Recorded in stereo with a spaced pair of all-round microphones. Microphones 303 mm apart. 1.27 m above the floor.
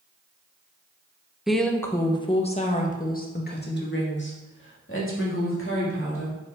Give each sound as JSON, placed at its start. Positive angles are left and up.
{"t": 1.5, "sound": "a woman speaking", "side_deg": 0, "distance_m": 1.0}